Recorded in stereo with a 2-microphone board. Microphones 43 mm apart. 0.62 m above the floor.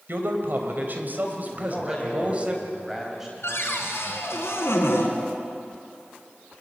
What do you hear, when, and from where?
0.1 s a man speaking: 60° right (ahead or behind), 3.5 m; by 2.5 s 30° right (ahead or behind), 3.5 m
1.5 s a man speaking: 10° right (ahead or behind), 4 m
3.4 s a cupboard door: 85° left, 3.5 m